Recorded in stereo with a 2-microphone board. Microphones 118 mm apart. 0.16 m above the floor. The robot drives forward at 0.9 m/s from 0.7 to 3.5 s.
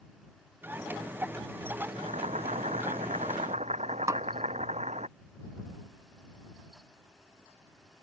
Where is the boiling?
70° right (ahead or behind); by 5.1 s 75° right (ahead or behind).